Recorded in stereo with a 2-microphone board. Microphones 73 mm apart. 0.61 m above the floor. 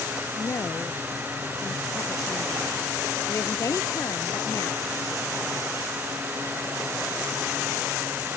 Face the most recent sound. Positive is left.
turn(degrees=45)  # may be behind; listen again after turning